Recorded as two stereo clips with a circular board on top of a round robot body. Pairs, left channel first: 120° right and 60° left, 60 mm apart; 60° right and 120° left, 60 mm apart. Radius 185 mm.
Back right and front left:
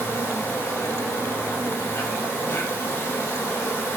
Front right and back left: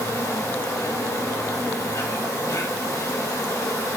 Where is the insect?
75° right, 1.7 m.